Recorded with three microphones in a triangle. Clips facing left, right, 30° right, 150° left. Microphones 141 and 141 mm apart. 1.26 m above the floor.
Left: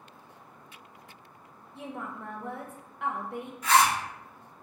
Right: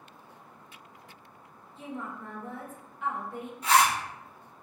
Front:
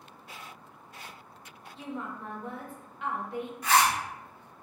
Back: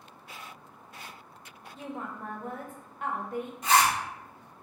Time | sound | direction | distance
1.8 | a woman speaking | 110° left | 0.6 m
3.6 | a zipper | 145° right | 1.1 m